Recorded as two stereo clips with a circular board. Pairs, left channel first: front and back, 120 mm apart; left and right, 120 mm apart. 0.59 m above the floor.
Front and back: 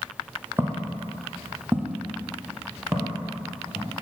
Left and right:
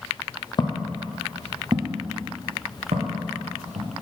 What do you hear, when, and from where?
0.6 s footsteps: 120° left, 0.8 m; by 3.9 s 95° right, 2.5 m